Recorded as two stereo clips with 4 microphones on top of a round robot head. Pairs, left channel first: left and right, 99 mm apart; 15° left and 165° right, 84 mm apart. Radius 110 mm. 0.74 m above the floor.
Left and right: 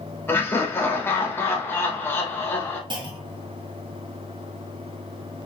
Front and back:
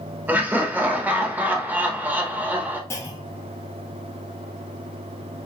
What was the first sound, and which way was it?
Laughter, 140° left.